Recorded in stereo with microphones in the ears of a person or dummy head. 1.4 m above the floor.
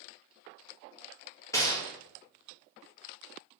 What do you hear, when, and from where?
1.5 s a gunshot: 15° left (ahead or behind), 0.7 m